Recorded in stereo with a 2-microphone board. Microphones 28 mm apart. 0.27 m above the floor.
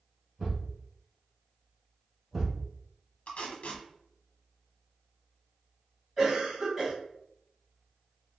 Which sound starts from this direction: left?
Tape being pulled, at 3.3 s.